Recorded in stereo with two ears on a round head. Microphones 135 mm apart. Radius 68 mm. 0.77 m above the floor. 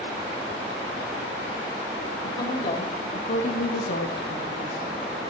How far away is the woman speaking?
About 1.9 m.